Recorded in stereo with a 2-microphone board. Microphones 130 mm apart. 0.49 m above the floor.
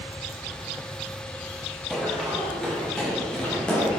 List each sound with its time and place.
1.9 s running footsteps: centre (ahead or behind), 7 m; by 4.0 s 10° left (ahead or behind), 5 m